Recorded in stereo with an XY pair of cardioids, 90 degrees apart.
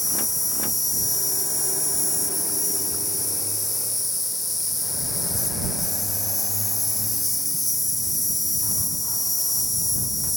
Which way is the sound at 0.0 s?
15° left.